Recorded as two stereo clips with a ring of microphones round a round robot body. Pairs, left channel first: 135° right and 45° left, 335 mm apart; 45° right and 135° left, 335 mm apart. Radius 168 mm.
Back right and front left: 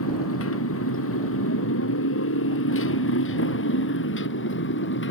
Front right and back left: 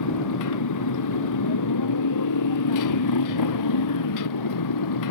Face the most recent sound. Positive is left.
turn(degrees=-80)